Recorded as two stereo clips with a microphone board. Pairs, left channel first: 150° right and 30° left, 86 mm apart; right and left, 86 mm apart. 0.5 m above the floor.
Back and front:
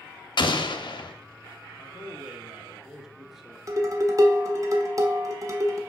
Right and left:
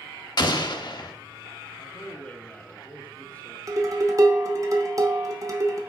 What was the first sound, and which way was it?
An explosion, 120° right.